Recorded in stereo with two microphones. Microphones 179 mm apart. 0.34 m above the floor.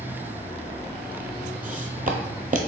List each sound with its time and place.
1.6 s footsteps: 50° right (ahead or behind), 0.6 m